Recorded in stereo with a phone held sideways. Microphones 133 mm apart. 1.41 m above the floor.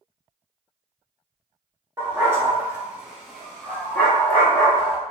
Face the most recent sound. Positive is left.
turn(degrees=20)  # may be behind; listen again after turning